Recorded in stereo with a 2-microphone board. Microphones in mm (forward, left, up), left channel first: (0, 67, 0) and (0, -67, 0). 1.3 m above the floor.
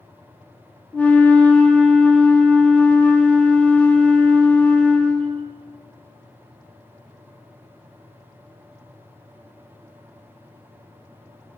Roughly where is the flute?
Centre.